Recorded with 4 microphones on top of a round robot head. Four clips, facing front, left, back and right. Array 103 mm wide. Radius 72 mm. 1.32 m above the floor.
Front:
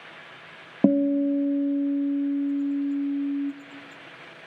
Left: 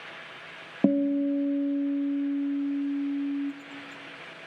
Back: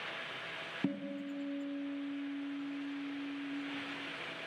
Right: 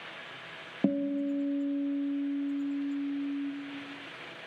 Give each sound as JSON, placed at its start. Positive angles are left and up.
{"t": 0.8, "sound": "a guitar", "azimuth_deg": 20, "distance_m": 0.5}